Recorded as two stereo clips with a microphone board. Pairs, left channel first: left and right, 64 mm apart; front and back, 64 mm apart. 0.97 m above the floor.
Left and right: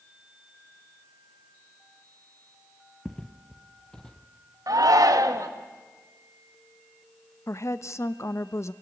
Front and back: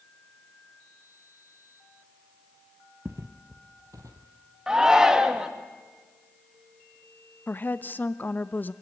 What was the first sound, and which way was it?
Footsteps, 165° left.